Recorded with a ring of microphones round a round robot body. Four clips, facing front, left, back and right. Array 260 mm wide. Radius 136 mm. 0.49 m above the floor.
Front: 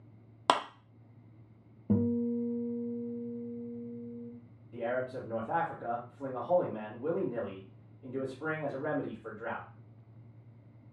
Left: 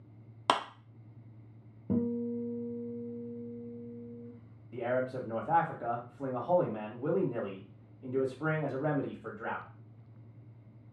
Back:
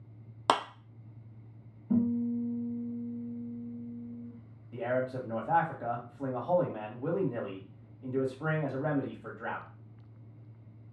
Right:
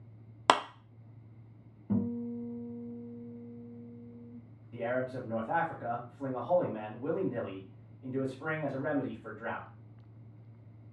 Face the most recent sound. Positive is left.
turn(degrees=140)